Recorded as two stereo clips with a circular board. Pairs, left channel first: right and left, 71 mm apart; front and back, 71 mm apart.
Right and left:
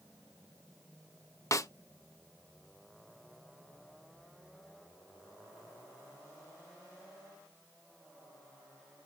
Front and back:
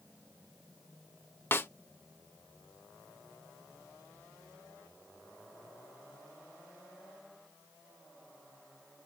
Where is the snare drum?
55° right, 0.5 m.